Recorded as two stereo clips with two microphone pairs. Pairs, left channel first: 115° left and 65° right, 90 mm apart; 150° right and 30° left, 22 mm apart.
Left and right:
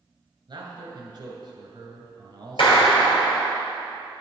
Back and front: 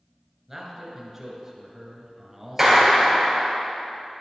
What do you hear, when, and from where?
0.5 s a man speaking: 45° right, 2 m
2.6 s a clap: 110° left, 3 m